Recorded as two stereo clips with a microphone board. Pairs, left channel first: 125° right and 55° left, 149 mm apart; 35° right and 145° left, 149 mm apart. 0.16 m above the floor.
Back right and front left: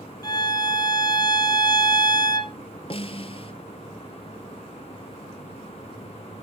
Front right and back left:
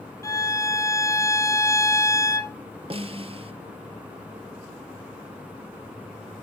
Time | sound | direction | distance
0.2 | a violin | 85° right | 0.8 m
2.9 | a snare drum | 170° right | 0.7 m